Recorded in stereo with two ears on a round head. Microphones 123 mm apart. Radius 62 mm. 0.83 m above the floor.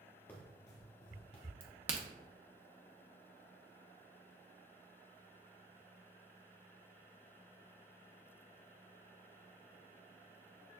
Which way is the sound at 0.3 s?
15° left (ahead or behind).